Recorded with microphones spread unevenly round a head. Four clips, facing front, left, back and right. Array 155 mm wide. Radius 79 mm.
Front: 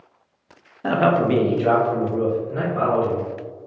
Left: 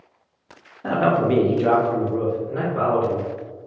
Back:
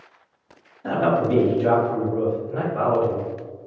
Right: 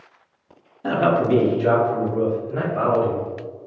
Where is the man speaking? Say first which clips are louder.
Even, front 2 dB; 5° left, 0.8 m; by 3.2 s 125° left, 2 m.